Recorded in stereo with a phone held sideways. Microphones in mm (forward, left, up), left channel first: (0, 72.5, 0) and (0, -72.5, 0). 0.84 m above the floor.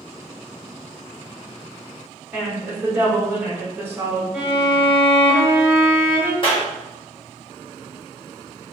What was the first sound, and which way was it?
A woman speaking, 15° right (ahead or behind).